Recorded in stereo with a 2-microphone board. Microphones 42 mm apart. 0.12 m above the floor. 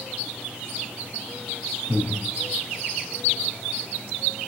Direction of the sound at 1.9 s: Centre (ahead or behind).